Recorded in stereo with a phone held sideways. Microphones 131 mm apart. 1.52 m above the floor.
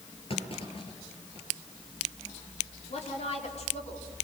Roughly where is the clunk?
Left.